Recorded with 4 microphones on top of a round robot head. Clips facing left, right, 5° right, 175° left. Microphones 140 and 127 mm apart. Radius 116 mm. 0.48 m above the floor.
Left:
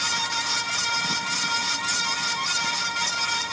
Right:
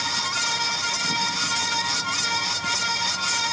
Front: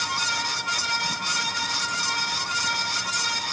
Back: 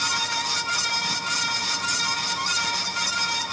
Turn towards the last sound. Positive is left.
No sound to turn to.